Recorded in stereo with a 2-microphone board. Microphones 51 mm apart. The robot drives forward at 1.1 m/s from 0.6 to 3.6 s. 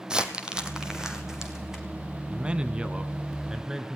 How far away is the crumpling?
About 1.7 m.